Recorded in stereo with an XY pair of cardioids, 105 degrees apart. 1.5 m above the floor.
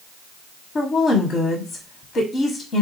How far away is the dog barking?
No dog barking in this recording.